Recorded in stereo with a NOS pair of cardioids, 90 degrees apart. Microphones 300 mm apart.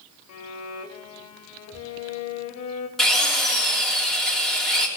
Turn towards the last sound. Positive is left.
turn(degrees=0)